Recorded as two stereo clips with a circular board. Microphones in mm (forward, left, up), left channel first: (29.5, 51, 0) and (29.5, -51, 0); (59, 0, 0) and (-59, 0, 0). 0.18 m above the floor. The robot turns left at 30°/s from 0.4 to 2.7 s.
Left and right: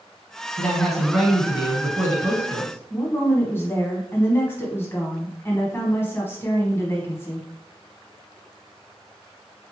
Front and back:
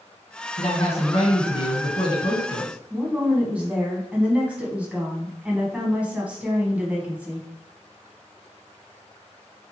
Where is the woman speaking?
115° left, 1.0 m.